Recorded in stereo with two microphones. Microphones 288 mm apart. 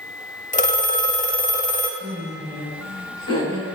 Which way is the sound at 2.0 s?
45° right (ahead or behind).